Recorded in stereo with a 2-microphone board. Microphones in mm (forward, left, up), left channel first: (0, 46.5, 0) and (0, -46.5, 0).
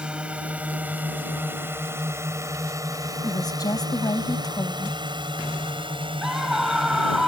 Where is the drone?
10° right (ahead or behind); by 7.3 s 70° right (ahead or behind).